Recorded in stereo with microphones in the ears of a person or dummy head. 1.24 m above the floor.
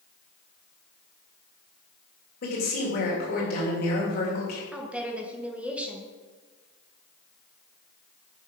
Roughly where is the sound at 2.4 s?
Left.